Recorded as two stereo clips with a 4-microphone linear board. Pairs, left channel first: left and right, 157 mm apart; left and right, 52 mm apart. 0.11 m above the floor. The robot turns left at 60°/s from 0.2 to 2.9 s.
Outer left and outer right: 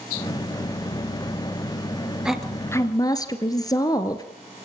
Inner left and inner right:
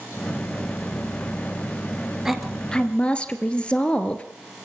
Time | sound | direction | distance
2.2 | a woman speaking | 175° right | 1.5 m